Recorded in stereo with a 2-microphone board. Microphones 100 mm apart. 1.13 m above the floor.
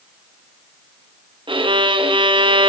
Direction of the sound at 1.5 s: 65° right (ahead or behind).